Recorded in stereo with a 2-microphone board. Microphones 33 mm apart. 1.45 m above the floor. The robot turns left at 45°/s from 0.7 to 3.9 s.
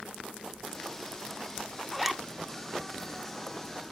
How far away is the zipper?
About 0.7 m.